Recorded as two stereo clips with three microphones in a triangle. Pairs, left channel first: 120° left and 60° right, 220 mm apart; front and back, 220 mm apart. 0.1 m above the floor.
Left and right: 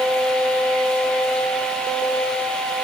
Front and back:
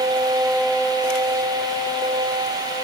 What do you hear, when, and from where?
Only background noise.